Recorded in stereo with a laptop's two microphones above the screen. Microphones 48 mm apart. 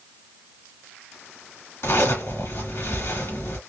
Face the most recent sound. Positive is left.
turn(degrees=60)  # may be behind; listen again after turning